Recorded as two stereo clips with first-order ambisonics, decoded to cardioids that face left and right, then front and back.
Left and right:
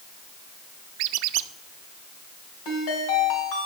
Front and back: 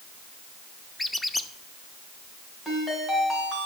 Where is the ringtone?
80° left, 3 m.